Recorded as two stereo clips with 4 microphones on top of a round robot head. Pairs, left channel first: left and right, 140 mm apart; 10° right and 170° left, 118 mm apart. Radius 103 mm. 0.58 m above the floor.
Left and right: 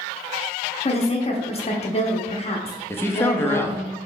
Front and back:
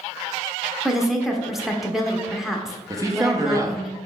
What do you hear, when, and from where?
0.8 s a woman speaking: 85° left, 0.8 m
2.9 s a man speaking: 145° left, 0.7 m